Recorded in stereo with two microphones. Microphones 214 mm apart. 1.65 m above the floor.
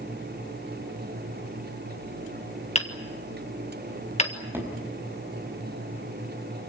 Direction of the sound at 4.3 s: 10° right (ahead or behind).